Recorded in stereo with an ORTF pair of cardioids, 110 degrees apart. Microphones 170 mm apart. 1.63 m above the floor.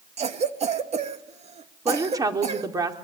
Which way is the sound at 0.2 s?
40° right.